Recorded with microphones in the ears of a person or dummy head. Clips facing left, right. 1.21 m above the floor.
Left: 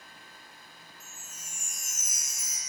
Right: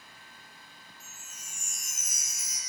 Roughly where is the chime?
Left.